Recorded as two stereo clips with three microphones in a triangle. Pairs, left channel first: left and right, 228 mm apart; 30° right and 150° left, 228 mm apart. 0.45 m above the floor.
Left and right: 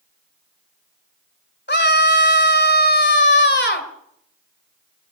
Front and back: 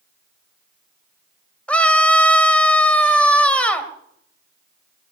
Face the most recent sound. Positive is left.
turn(degrees=55)